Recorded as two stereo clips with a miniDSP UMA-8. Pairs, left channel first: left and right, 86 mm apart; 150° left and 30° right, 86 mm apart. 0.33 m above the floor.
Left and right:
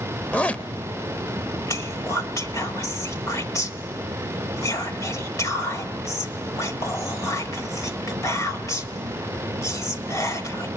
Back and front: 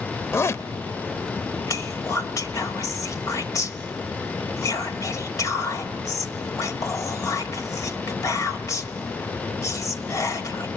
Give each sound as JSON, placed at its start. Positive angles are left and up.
{"t": 0.3, "sound": "a zipper", "azimuth_deg": 150, "distance_m": 0.6}
{"t": 1.7, "sound": "whispering", "azimuth_deg": 120, "distance_m": 1.2}